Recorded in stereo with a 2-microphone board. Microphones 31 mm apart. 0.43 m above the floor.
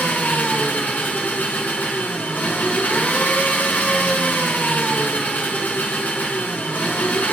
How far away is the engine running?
About 5 m.